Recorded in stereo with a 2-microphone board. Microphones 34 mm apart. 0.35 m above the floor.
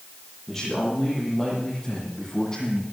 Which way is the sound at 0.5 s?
Centre (ahead or behind).